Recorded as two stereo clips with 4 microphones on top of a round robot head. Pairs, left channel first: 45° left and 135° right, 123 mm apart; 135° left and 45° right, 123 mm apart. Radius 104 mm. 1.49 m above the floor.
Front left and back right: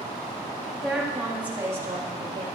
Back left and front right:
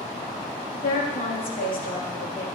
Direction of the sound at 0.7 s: 130° left.